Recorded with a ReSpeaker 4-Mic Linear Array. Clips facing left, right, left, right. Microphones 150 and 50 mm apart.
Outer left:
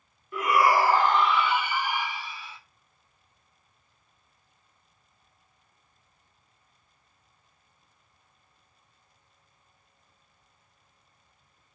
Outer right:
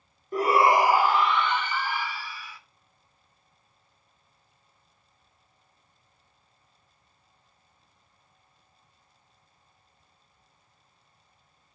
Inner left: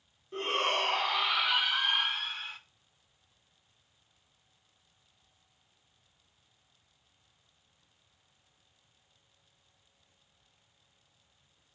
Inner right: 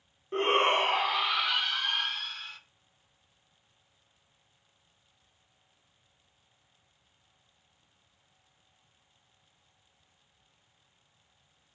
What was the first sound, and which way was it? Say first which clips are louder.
A shout: outer right 2 dB, inner right 6 dB; 40° right (ahead or behind).